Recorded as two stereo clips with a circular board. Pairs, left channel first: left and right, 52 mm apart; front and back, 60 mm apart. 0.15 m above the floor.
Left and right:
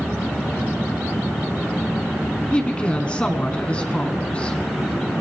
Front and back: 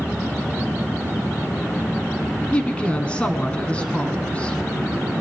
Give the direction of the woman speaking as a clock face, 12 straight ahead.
10 o'clock.